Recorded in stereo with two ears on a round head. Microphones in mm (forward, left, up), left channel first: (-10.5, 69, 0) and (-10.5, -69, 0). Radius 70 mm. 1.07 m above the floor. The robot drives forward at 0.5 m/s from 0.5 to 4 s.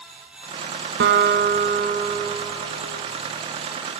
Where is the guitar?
80° right, 1.2 m; by 3.0 s 55° right (ahead or behind), 1.4 m.